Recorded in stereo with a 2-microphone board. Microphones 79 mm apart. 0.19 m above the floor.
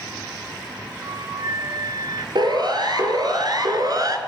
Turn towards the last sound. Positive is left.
turn(degrees=-55)  # may be behind; listen again after turning